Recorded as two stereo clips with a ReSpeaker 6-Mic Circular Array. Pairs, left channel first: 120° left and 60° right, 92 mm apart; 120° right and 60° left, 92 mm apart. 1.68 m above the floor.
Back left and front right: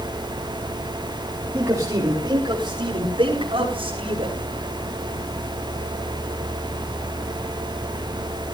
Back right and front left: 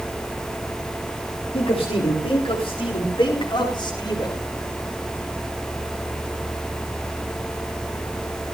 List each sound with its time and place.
1.5 s a man speaking: 120° right, 3 m; by 4.4 s 75° right, 5 m